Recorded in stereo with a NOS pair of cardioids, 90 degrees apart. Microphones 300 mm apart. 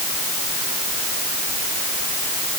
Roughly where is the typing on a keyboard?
No typing on a keyboard in this recording.